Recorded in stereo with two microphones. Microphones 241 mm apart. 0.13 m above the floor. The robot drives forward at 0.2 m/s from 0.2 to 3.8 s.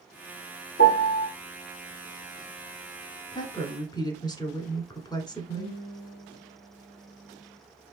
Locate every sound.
0.8 s a piano: 55° left (ahead or behind), 1.2 m; by 1.3 s 50° left (ahead or behind), 1.3 m
3.3 s a woman speaking: 15° left (ahead or behind), 1.2 m
5.5 s a guitar: 65° left (ahead or behind), 2.5 m